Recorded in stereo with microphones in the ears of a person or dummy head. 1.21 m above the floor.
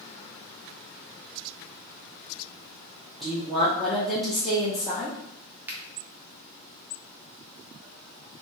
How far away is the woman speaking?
About 0.6 m.